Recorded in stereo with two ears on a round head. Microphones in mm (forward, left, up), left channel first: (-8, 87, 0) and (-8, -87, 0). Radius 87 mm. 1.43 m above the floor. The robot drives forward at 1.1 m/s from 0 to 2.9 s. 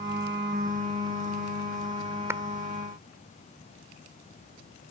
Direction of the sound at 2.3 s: 15° right (ahead or behind).